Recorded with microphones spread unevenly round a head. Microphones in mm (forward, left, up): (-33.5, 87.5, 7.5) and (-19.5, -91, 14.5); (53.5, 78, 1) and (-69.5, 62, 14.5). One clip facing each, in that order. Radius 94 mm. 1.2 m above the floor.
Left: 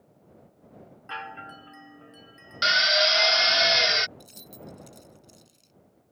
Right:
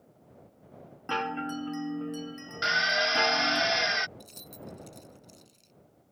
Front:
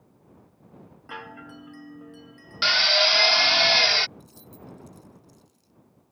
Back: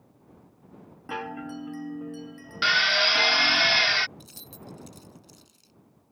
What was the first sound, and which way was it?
A chime, 115° right.